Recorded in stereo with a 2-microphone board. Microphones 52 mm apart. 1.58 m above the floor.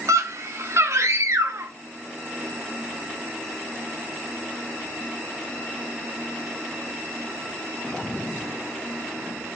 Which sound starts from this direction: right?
A scream, at 0.1 s.